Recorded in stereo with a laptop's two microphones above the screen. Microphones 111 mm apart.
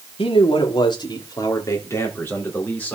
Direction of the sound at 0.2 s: 55° left (ahead or behind).